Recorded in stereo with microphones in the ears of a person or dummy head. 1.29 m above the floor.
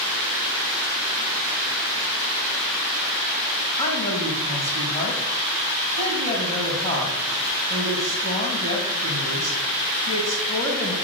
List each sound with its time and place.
3.8 s a woman speaking: 30° left (ahead or behind), 2.5 m